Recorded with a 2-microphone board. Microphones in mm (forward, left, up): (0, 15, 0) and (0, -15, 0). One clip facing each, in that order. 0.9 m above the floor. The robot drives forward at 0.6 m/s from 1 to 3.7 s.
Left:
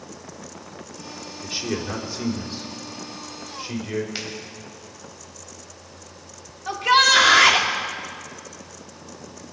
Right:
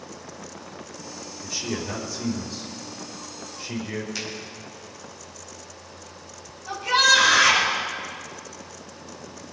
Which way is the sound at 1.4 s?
40° left (ahead or behind).